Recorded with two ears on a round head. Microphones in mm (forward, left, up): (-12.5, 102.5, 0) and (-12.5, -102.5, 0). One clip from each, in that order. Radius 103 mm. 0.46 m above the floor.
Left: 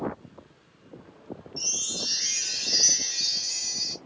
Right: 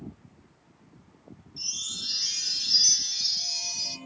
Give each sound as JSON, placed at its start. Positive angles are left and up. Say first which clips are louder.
{"t": 1.6, "sound": "a chime", "louder": "left 3 dB", "side_deg": 75, "distance_m": 3.0}